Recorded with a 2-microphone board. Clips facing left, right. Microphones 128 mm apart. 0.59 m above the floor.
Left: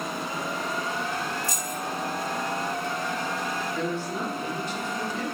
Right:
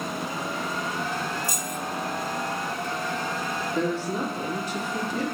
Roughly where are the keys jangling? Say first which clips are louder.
Even; centre.